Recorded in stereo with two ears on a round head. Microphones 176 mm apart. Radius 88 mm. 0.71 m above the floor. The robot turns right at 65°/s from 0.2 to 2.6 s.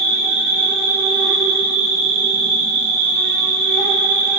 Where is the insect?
110° left, 1.8 m; by 4.4 s 95° right, 1.8 m.